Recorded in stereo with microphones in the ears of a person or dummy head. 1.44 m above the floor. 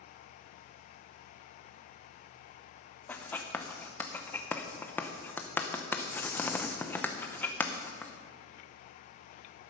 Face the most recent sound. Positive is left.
turn(degrees=10)  # may be behind; listen again after turning